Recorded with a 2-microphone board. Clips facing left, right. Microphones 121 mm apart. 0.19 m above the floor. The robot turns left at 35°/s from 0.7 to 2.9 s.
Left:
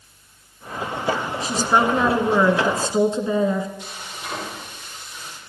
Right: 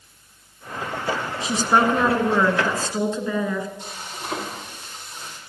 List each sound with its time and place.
1.4 s a woman speaking: 155° right, 1.9 m; by 3.7 s 150° left, 1.9 m
3.8 s frying: 40° right (ahead or behind), 6.5 m